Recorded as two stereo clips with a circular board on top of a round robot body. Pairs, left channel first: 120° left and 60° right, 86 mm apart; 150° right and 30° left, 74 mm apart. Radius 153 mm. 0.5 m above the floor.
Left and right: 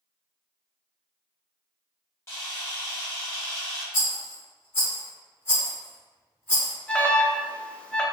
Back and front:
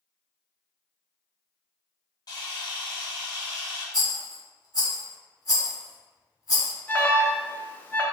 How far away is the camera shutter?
About 1.7 m.